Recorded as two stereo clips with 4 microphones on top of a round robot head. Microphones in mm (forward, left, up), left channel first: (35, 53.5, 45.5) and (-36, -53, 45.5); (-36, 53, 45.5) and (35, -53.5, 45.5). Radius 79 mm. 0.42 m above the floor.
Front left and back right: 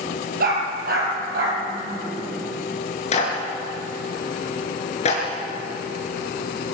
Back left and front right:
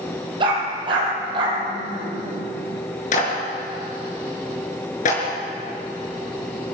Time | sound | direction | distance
0.4 | a dog barking | 110° right | 5.5 m
3.1 | a clap | 95° left | 5.5 m